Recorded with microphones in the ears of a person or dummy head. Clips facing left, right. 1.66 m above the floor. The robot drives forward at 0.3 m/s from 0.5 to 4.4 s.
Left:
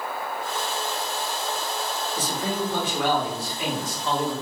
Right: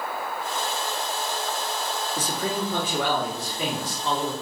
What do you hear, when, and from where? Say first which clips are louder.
2.2 s a man speaking: left 1 dB; 40° right (ahead or behind), 0.7 m; by 4.3 s 20° right (ahead or behind), 1.2 m